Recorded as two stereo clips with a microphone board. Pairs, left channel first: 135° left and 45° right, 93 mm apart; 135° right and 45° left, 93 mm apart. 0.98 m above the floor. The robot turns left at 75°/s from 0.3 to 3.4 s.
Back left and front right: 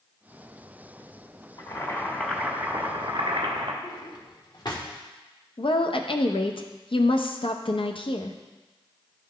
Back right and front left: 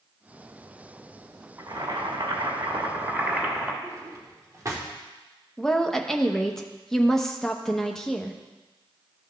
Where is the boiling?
100° left, 1.5 m; by 3.7 s 35° right, 1.5 m.